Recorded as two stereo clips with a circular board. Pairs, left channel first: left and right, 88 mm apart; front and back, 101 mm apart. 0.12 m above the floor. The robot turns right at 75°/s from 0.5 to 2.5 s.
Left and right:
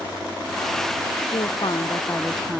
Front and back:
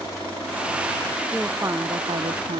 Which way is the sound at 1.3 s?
95° left.